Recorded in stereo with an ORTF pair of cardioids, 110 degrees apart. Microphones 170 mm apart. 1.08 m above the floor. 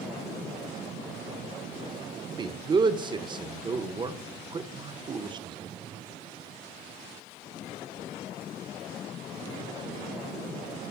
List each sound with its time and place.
2.3 s a man speaking: 30° right, 0.7 m